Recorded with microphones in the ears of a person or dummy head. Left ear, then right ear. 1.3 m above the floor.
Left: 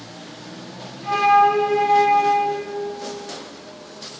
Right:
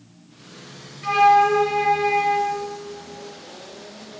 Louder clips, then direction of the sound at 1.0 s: Even; 75° right (ahead or behind).